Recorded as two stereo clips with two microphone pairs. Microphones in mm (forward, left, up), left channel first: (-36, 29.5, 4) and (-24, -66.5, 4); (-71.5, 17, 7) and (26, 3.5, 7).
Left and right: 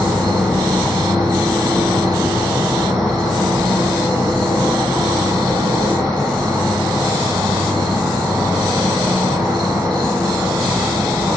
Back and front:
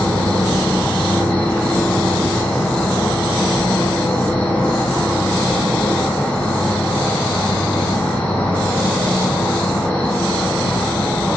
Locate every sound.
0.0 s an insect: 115° right, 1.2 m